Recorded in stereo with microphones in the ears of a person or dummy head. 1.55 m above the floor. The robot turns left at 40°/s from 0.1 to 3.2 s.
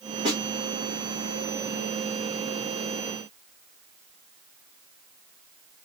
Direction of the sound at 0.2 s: 30° right (ahead or behind).